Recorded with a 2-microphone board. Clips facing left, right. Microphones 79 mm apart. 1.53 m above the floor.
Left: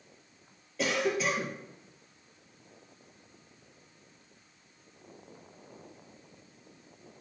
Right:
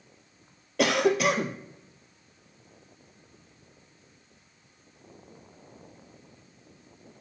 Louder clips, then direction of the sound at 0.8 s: Right 6 dB; 70° right (ahead or behind).